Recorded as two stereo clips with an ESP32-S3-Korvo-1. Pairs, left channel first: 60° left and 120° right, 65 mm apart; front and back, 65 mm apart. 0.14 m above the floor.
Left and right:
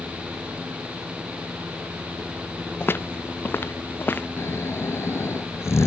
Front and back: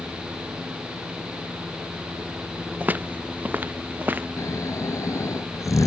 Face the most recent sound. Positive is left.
turn(degrees=20)